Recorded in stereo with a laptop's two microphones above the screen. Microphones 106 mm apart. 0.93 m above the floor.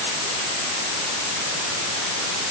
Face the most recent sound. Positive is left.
No sound to turn to.